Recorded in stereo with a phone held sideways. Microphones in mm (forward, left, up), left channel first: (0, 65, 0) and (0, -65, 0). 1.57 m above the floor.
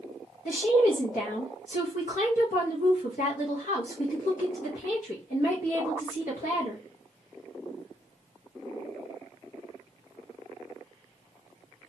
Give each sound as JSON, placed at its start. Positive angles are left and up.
{"t": 0.5, "sound": "a woman speaking", "side_deg": 85, "distance_m": 0.8}